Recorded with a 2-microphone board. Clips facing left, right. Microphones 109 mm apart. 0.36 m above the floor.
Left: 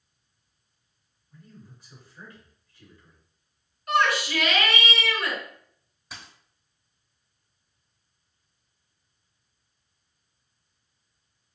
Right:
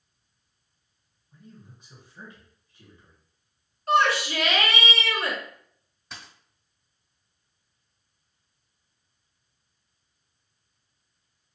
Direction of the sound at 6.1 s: 5° left (ahead or behind).